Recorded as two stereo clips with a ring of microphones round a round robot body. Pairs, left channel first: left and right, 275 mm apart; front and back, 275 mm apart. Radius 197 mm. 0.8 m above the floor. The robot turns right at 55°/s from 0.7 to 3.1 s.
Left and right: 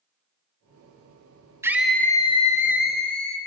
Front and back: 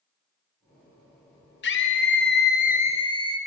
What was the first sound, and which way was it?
A scream, 15° right.